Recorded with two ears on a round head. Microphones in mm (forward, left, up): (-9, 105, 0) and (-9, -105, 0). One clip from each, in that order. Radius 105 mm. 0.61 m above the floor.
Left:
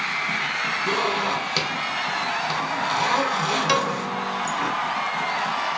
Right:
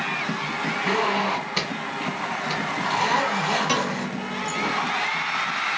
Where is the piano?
25° left (ahead or behind), 0.8 m.